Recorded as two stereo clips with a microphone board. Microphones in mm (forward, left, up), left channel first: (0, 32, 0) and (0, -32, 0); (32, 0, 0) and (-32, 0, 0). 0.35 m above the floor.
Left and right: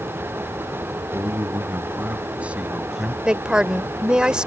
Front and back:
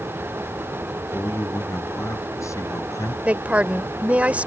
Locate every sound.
1.1 s a man speaking: 45° right; by 3.1 s 5° right
3.2 s a woman speaking: 150° right